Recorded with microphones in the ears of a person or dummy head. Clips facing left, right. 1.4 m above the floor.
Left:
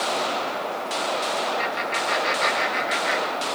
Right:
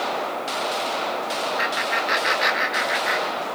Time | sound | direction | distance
1.6 | laughter | 15° right (ahead or behind) | 5 m